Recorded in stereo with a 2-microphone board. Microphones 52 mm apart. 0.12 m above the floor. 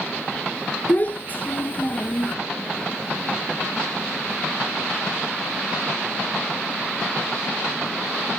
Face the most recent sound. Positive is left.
turn(degrees=35)  # may be behind; listen again after turning